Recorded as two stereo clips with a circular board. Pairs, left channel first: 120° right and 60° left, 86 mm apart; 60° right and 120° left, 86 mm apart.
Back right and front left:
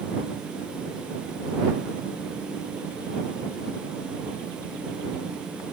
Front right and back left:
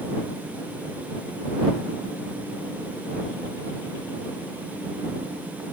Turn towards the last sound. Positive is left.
No sound to turn to.